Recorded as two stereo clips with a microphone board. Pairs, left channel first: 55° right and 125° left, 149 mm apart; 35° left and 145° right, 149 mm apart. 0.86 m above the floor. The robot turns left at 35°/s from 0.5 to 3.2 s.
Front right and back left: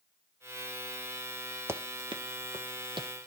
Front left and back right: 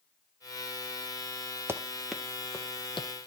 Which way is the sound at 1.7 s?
170° left.